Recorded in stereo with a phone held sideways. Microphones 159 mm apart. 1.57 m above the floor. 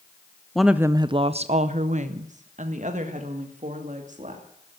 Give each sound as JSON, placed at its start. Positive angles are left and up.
{"t": 0.6, "sound": "a woman speaking", "side_deg": 5, "distance_m": 0.5}